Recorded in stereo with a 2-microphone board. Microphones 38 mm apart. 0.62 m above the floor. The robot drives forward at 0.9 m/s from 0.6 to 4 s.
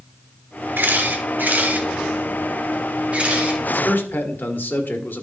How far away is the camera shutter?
About 1.9 m.